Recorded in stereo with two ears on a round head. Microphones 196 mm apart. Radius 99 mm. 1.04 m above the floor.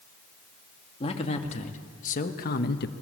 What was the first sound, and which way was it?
A man speaking, 25° left (ahead or behind).